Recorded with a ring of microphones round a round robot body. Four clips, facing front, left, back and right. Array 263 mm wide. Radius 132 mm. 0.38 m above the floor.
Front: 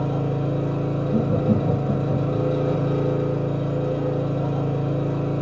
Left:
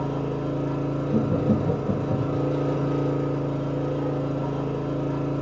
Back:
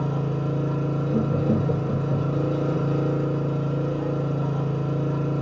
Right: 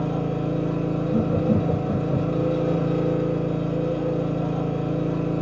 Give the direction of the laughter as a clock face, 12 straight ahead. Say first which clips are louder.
Right 1 dB, front 2 dB; 11 o'clock.